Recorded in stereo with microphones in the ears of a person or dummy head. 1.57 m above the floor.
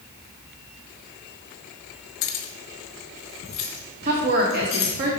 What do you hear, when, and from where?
2.2 s keys jangling: 45° left (ahead or behind), 1.0 m; by 4.9 s 30° left (ahead or behind), 3 m
4.0 s a woman speaking: 50° right (ahead or behind), 1.9 m